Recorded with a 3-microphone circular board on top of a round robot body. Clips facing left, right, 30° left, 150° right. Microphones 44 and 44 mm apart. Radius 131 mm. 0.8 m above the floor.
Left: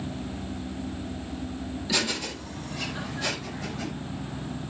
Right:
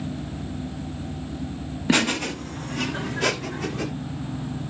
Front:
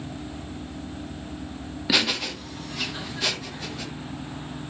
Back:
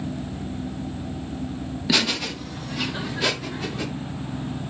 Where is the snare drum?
No snare drum in this recording.